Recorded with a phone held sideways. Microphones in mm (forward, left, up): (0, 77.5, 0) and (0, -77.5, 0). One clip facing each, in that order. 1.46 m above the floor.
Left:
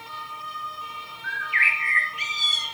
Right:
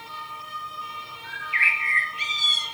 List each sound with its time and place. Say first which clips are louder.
1.2 s a bird: left 2 dB; 30° right (ahead or behind), 1.7 m